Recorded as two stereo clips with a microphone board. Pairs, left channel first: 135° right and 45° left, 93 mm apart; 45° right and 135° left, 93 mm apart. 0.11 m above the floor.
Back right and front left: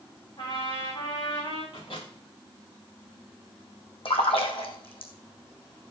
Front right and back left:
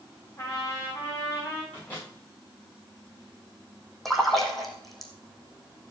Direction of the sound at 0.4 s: 105° right.